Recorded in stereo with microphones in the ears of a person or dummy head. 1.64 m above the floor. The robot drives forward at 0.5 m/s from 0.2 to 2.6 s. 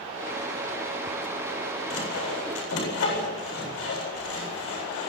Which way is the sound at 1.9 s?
90° left.